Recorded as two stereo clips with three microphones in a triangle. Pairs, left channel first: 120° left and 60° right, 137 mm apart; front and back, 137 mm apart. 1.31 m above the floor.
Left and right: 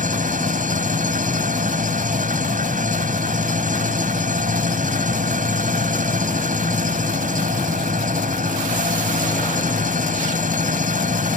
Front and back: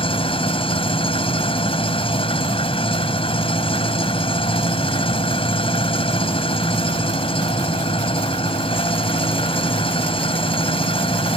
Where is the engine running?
45° right.